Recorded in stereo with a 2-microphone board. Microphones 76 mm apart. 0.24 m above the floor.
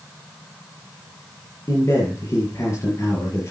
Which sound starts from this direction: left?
A man speaking, at 1.7 s.